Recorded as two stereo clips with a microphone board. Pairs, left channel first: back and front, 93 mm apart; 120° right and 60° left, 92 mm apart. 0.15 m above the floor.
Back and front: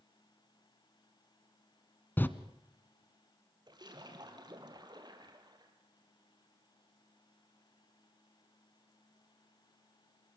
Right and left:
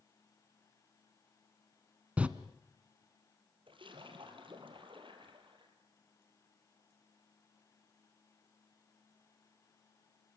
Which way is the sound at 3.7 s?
40° left.